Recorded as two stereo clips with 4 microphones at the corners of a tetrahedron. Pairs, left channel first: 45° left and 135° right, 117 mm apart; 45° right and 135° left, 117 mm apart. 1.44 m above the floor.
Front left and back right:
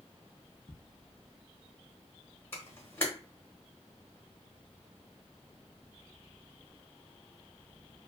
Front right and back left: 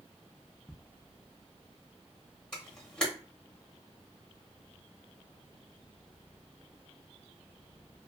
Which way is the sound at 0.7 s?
30° left.